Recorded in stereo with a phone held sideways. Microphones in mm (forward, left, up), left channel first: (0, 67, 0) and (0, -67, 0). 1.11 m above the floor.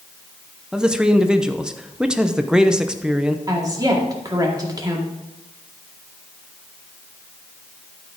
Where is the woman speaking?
30° right (ahead or behind), 1.9 m.